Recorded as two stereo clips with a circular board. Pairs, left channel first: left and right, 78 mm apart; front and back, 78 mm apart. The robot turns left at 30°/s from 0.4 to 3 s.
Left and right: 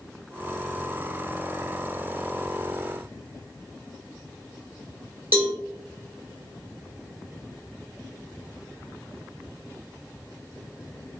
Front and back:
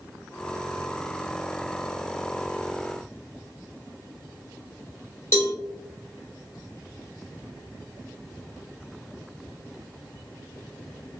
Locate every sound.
5.3 s a cowbell: 35° right, 1.2 m